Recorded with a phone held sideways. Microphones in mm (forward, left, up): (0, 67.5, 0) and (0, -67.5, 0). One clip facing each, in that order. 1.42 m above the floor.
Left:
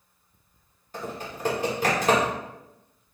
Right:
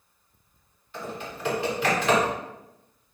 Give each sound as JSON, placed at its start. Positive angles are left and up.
{"t": 0.9, "sound": "typing on a keyboard", "side_deg": 40, "distance_m": 1.2}